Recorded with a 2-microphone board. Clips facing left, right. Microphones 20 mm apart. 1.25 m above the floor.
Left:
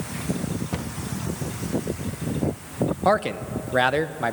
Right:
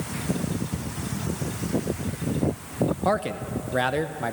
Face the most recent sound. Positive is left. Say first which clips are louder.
# left 4 dB
turn(degrees=20)  # may be behind; listen again after turning